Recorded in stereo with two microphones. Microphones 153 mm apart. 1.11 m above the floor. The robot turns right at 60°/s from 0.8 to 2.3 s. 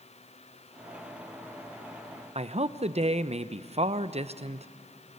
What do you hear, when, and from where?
2.4 s a man speaking: 45° right (ahead or behind), 0.7 m